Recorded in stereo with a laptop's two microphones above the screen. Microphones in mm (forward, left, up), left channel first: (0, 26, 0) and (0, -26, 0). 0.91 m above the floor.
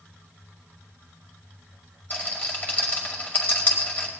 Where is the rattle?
35° left (ahead or behind), 2 m.